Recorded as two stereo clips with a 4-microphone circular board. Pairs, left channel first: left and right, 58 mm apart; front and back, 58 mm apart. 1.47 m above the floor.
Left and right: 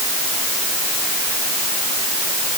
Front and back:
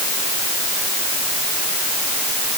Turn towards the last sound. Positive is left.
No sound to turn to.